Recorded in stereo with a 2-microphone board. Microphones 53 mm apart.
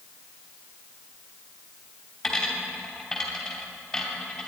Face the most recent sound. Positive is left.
turn(degrees=5)  # may be behind; listen again after turning